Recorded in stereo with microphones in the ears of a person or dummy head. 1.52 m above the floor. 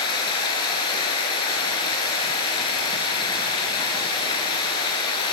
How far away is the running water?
About 4.5 m.